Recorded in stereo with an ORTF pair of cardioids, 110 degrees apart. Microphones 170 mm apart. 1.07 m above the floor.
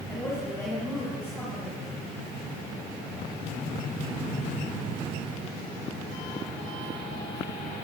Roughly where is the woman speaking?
Ahead.